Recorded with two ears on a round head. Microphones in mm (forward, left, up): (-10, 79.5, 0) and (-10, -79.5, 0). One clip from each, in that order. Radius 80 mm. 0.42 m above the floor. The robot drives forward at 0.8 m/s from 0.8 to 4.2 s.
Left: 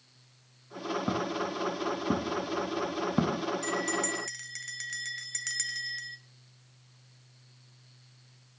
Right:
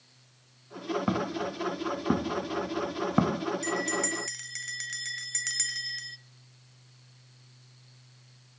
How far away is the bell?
About 0.9 m.